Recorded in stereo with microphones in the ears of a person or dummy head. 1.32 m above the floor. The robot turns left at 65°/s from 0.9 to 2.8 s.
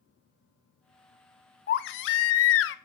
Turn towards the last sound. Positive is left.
turn(degrees=60)